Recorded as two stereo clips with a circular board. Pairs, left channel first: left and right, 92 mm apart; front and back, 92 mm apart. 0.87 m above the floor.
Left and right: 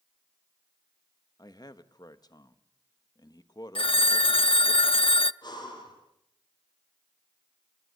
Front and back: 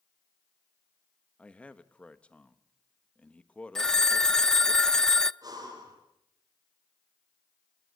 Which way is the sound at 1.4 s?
70° left.